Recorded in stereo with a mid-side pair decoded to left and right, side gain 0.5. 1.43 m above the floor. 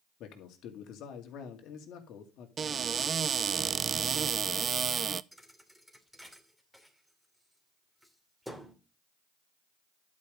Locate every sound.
0.2 s a man speaking: 70° left, 2.5 m
2.6 s a cupboard door: 40° right, 0.5 m
5.3 s a thud: straight ahead, 2.5 m